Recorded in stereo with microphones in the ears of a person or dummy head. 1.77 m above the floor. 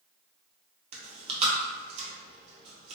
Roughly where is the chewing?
Right.